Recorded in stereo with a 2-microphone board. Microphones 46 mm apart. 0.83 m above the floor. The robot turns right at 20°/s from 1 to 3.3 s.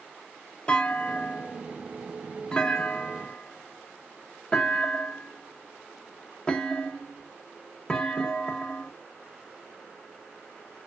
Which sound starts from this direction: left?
A clunk, at 0.7 s.